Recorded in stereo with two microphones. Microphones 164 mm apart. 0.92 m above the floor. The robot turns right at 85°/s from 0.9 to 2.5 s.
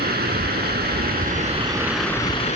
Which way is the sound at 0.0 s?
90° right.